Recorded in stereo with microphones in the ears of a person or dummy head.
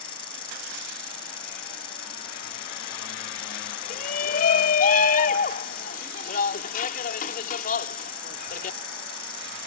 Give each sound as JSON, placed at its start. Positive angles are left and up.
{"t": 0.0, "sound": "an insect", "side_deg": 30}
{"t": 3.9, "sound": "a shout", "side_deg": 50}